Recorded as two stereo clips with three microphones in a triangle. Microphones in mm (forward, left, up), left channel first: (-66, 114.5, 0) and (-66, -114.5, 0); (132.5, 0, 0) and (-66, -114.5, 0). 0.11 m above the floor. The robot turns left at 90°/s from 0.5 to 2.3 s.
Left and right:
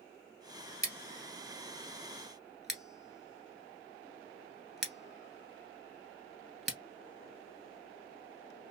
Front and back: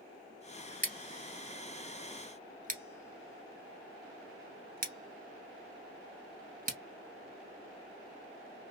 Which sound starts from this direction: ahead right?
Scissors, at 0.8 s.